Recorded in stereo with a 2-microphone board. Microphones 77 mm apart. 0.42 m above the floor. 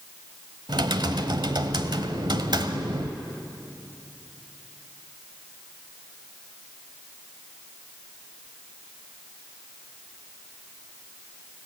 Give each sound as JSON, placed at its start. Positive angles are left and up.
{"t": 0.7, "sound": "typing on a keyboard", "side_deg": -70, "distance_m": 1.1}